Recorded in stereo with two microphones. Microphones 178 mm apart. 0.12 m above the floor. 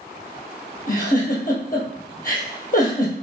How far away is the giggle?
About 1.3 m.